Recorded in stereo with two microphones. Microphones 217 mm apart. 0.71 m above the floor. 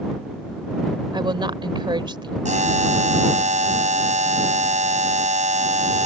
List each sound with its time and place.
1.1 s a woman speaking: 20° right (ahead or behind)
2.5 s a buzzer: 35° right (ahead or behind)